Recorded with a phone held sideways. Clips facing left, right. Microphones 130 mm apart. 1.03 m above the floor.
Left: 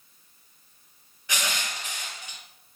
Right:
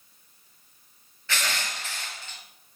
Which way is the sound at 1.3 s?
15° left (ahead or behind).